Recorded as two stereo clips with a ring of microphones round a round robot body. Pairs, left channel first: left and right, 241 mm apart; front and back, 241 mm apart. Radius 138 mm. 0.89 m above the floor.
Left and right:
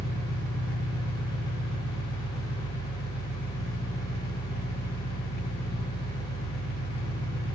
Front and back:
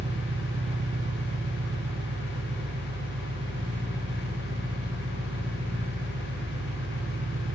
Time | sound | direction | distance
0.0 | an engine running | 120° left | 0.8 m